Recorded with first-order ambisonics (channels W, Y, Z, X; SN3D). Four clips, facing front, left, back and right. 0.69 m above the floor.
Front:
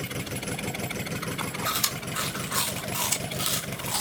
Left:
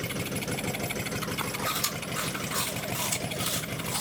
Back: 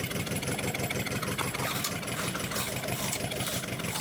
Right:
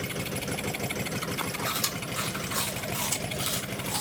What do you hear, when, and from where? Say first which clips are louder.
1.6 s chewing: even, front 4 dB; 10° right, 2 m